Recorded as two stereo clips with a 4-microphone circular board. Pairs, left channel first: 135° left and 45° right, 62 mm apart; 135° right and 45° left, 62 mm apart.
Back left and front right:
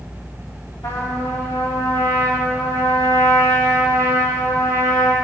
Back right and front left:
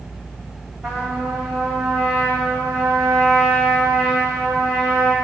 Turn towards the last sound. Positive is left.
turn(degrees=135)